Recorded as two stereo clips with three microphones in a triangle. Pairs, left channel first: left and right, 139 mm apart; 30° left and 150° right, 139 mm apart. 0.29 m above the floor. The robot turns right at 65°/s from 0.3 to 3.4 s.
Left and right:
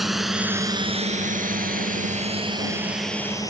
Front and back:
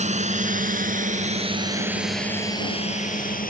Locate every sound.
0.0 s a drone: straight behind; by 3.5 s 25° left